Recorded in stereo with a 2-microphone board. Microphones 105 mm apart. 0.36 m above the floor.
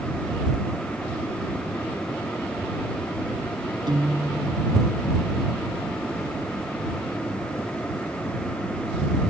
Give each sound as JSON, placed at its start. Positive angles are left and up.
{"t": 3.9, "sound": "a guitar", "side_deg": -45}